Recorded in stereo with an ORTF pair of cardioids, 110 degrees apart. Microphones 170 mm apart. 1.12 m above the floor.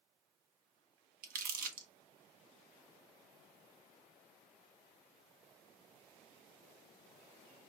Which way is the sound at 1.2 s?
60° right.